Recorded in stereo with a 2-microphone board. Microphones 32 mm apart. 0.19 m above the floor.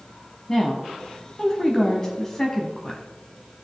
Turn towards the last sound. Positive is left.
turn(degrees=15)  # may be behind; listen again after turning